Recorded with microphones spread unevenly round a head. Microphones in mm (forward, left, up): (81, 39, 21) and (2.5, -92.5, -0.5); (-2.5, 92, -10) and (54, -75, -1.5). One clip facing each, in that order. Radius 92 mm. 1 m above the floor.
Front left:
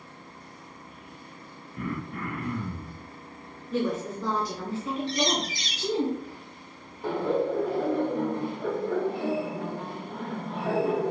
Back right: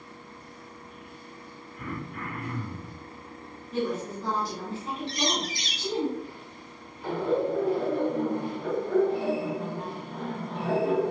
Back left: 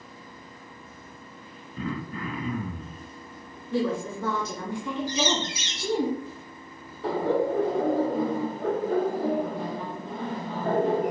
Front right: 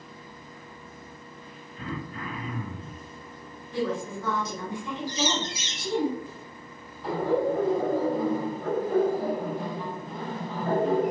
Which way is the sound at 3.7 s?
85° left.